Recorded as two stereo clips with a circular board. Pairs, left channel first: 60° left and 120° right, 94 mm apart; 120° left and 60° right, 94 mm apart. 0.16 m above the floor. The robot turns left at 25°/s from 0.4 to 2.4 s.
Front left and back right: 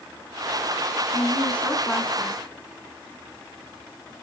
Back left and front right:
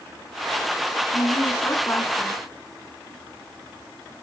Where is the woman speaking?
130° left, 1.3 m; by 2.4 s 100° left, 1.3 m.